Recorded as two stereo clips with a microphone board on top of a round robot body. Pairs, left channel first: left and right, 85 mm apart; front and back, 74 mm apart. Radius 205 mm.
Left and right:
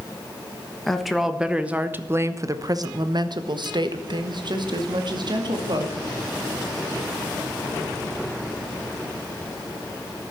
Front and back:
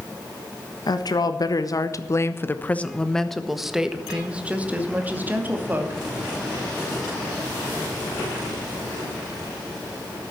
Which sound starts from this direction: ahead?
A woman speaking, at 0.9 s.